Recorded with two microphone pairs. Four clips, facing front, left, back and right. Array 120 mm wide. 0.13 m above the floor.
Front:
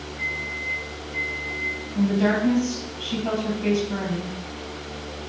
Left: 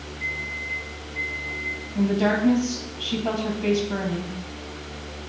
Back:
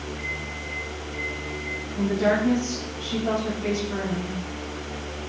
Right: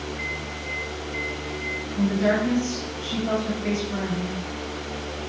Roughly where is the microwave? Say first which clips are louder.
Right 1 dB, front 2 dB; right.